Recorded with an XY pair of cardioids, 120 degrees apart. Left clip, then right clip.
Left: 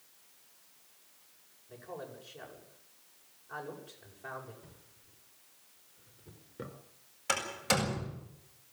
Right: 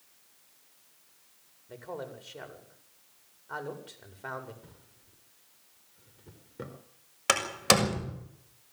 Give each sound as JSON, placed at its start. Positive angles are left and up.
{"t": 1.7, "sound": "a man speaking", "azimuth_deg": -45, "distance_m": 7.5}
{"t": 4.6, "sound": "a drawer", "azimuth_deg": -20, "distance_m": 4.0}
{"t": 7.3, "sound": "a door slam", "azimuth_deg": -60, "distance_m": 6.5}